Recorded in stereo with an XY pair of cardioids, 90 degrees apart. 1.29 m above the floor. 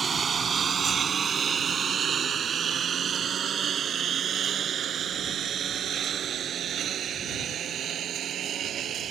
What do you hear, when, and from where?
0.0 s a lawn mower: 50° right; by 9.1 s 70° right